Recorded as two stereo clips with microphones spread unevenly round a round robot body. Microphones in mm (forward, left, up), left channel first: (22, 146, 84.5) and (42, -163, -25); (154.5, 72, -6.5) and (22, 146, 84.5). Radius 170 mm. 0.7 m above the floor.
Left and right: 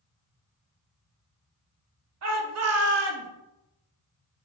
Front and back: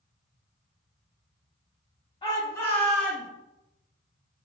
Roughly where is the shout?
Right.